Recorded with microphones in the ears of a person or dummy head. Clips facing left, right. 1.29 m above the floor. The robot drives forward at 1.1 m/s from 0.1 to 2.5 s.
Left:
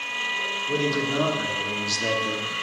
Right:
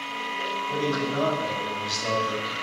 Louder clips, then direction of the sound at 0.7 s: Left 2 dB; 45° left (ahead or behind).